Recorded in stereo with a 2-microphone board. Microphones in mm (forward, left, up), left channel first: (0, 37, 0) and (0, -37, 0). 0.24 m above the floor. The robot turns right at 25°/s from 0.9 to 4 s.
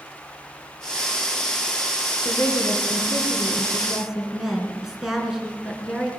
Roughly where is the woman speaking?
Behind left.